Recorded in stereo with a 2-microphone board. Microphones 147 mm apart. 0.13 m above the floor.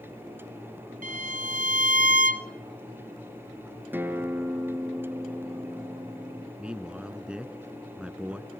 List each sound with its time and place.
1.0 s a violin: 70° right (ahead or behind), 0.6 m
3.9 s a guitar: 15° right (ahead or behind), 1.3 m
6.6 s a man speaking: 5° right (ahead or behind), 1.1 m